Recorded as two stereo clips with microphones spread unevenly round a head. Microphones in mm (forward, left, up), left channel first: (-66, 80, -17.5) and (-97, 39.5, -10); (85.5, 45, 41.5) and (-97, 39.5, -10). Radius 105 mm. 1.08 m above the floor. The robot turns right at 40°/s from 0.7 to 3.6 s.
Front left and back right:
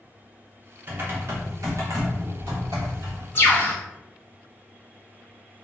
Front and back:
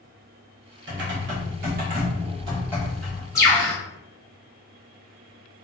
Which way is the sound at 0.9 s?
175° right.